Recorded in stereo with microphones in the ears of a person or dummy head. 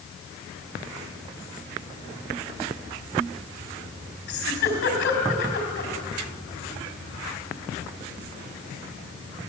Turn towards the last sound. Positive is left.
turn(degrees=60)  # may be behind; listen again after turning